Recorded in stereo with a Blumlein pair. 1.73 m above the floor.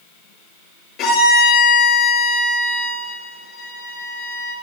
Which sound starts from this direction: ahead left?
A violin, at 1.0 s.